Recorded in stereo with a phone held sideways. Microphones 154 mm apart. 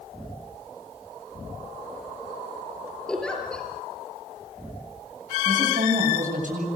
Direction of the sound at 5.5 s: 55° right (ahead or behind).